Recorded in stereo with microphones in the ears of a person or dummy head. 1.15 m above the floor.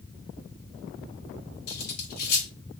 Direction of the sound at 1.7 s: 55° left (ahead or behind).